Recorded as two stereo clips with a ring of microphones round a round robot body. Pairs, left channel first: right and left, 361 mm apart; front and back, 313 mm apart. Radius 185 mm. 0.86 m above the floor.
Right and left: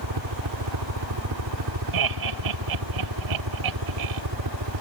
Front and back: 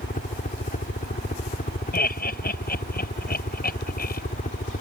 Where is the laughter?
60° left.